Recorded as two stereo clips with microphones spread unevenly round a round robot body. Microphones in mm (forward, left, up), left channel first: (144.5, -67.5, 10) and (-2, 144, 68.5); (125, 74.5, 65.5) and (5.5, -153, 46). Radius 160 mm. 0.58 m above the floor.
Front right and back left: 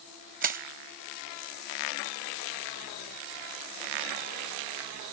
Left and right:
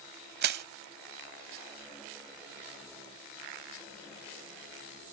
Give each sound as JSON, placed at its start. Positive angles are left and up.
{"t": 0.4, "sound": "crushing", "azimuth_deg": 180}